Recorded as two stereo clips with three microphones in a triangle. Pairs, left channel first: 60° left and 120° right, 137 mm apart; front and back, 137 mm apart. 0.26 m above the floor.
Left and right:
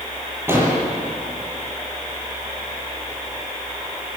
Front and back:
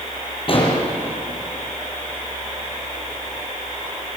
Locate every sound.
0.5 s an explosion: 50° right, 6.5 m